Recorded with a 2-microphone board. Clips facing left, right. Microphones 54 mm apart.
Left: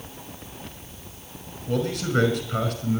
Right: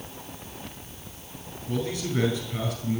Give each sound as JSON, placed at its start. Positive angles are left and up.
{"t": 1.7, "sound": "a man speaking", "side_deg": 55, "distance_m": 5.0}